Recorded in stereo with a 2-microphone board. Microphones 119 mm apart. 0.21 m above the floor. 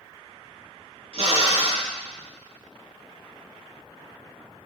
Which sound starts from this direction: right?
A drill, at 1.1 s.